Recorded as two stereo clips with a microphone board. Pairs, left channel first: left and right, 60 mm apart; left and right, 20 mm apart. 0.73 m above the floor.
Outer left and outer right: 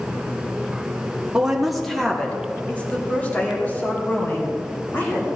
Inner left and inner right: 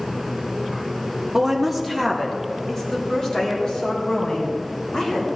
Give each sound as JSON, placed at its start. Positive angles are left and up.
{"t": 1.3, "sound": "a woman speaking", "side_deg": -10, "distance_m": 1.2}